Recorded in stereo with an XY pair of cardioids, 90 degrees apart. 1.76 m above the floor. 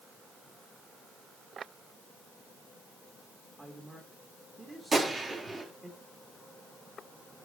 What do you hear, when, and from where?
3.6 s a man speaking: 20° right, 3 m
4.9 s a gunshot: 40° right, 4.5 m